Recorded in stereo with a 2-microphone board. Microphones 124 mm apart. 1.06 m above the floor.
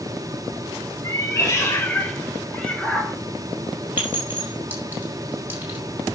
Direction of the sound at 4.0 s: 15° right (ahead or behind).